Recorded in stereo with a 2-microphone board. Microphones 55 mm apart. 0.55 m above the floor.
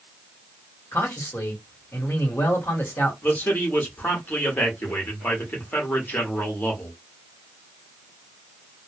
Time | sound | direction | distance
0.9 | a man speaking | 45° left (ahead or behind) | 1.3 m
3.2 | a man speaking | 35° left (ahead or behind) | 1.3 m